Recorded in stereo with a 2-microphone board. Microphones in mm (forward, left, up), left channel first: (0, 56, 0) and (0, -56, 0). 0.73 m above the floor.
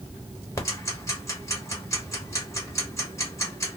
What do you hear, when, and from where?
0.6 s ticking: 25° left (ahead or behind), 1.1 m